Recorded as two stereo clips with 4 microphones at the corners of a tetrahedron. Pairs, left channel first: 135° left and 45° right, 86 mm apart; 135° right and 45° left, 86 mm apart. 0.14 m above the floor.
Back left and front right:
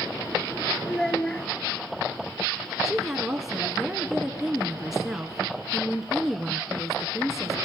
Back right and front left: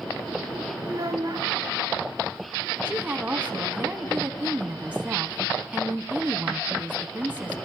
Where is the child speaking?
60° left, 0.8 m.